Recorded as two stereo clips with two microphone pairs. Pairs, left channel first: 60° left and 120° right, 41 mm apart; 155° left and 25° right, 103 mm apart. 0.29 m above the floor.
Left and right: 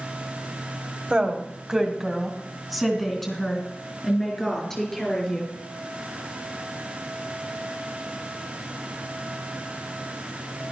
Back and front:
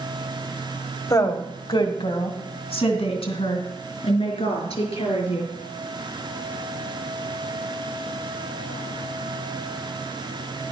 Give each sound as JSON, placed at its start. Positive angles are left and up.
{"t": 1.1, "sound": "a woman speaking", "azimuth_deg": -175, "distance_m": 1.2}